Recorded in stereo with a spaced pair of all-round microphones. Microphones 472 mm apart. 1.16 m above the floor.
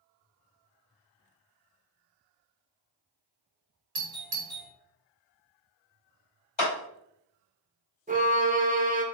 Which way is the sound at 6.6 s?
65° left (ahead or behind).